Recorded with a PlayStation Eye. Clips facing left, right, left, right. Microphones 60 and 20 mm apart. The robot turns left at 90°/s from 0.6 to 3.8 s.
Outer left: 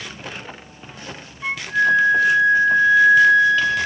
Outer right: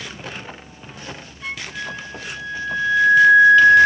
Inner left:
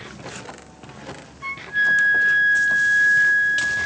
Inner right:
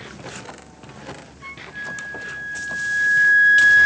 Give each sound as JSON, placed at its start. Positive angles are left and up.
{"t": 1.4, "sound": "a flute", "azimuth_deg": 155}